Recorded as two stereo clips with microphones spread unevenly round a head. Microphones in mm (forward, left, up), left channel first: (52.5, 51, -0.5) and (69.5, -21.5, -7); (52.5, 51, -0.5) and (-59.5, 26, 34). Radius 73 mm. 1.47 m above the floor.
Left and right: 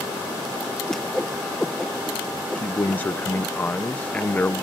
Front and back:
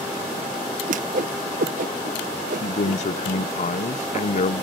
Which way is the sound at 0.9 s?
175° right.